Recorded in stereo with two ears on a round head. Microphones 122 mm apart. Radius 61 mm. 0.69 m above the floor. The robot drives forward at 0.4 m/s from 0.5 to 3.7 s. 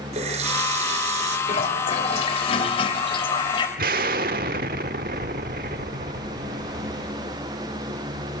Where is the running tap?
50° right (ahead or behind), 7 m.